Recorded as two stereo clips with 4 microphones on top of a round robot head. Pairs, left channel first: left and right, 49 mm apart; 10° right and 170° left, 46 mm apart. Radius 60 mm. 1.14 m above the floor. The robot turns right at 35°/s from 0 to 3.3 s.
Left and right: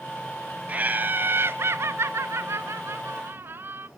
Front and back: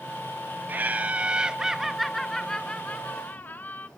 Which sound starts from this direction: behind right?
Laughter, at 0.7 s.